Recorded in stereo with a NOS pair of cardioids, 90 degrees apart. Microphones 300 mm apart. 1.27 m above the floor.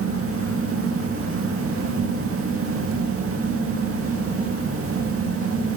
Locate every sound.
0.0 s a fan: 50° right, 1.7 m